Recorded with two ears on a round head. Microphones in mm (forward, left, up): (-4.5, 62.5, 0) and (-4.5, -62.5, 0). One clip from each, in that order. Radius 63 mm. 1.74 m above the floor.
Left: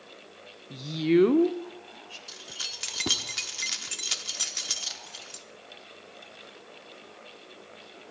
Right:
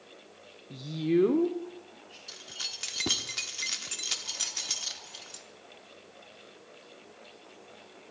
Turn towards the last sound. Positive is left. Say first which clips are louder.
# left 1 dB
turn(degrees=10)  # may be behind; listen again after turning